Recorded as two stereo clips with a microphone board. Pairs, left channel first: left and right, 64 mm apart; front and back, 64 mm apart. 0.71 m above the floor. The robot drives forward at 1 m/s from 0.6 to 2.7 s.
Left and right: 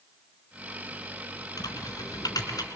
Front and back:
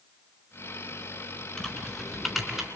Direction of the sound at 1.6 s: 75° left.